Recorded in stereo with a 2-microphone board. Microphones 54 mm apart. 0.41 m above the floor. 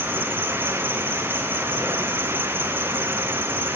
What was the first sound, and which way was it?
An insect, 40° right (ahead or behind).